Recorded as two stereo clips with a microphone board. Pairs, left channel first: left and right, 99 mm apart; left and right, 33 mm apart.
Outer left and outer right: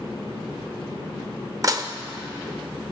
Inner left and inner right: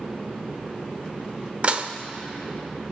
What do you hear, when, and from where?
1.6 s dishes clattering: 35° right (ahead or behind), 0.6 m